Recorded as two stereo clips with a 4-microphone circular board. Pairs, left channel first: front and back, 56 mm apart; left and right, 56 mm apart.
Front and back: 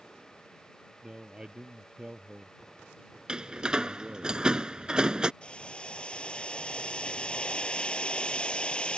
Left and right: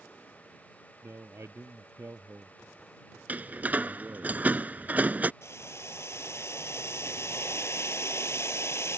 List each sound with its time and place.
1.0 s a man speaking: 105° right
3.3 s a door slam: 120° right
5.4 s boiling: 65° left